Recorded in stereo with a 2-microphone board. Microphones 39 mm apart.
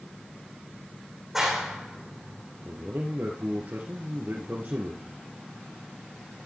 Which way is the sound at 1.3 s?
10° right (ahead or behind).